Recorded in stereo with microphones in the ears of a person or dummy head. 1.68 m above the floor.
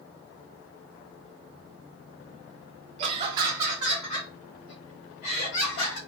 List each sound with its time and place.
3.0 s laughter: 40° right (ahead or behind), 0.8 m; by 6.0 s 55° left (ahead or behind), 1.2 m